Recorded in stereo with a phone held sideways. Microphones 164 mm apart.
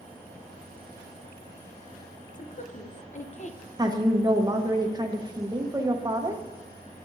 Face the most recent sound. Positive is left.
turn(degrees=-25)  # may be behind; listen again after turning